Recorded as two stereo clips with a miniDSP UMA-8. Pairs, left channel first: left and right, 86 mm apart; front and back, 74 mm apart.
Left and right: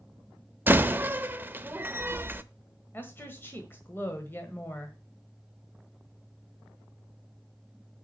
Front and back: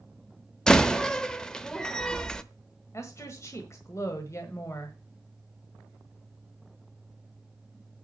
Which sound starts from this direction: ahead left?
A woman speaking, at 2.9 s.